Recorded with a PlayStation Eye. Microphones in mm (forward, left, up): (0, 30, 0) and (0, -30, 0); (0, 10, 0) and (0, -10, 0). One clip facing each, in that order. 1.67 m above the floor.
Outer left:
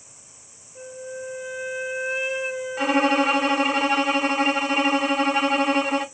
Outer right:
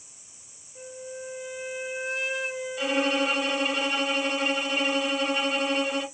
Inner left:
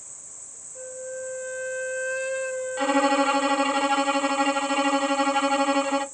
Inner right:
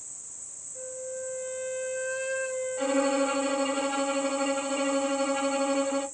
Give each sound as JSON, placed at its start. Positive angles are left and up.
{"t": 0.8, "sound": "a flute", "side_deg": 10, "distance_m": 1.5}
{"t": 2.8, "sound": "a violin", "side_deg": 50, "distance_m": 1.0}